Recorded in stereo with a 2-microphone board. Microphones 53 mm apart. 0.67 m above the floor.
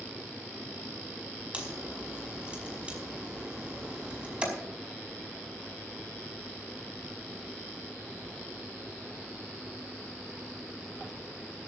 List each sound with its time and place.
1.5 s a crack: 20° right (ahead or behind), 5 m